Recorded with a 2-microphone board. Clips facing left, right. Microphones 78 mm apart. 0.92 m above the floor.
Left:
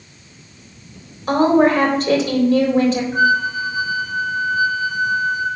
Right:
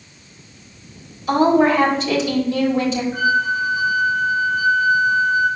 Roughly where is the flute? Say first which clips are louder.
Left 2 dB; left.